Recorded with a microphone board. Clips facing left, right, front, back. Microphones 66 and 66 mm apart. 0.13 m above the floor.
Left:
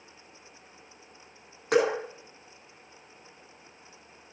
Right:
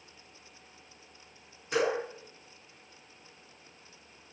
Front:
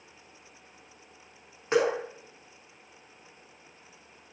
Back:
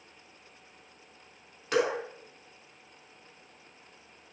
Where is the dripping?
65° left, 3 m.